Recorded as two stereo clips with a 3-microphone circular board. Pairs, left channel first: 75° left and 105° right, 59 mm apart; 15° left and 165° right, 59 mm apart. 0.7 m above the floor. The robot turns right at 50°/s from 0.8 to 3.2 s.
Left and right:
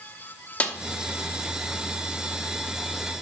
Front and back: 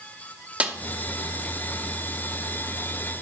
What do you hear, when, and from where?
0.6 s a snare drum: 135° left, 0.7 m